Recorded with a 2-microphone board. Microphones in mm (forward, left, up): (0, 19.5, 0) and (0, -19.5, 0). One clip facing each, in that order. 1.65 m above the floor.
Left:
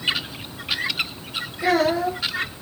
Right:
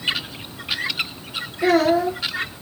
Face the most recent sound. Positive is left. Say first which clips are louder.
# right 3 dB
turn(degrees=-55)  # may be behind; listen again after turning